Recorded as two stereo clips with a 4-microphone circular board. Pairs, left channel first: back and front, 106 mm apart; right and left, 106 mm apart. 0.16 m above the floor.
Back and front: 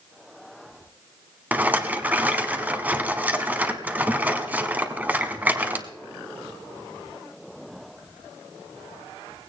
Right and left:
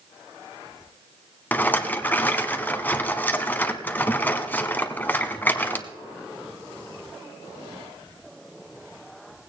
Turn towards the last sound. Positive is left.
turn(degrees=-50)